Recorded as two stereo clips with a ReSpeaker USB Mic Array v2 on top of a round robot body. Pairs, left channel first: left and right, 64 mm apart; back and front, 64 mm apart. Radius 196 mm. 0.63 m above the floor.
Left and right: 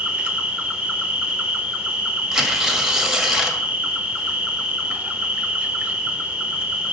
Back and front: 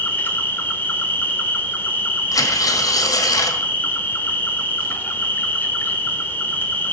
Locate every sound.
0.0 s an insect: 150° right, 1.4 m
2.3 s tearing paper: 175° right, 1.3 m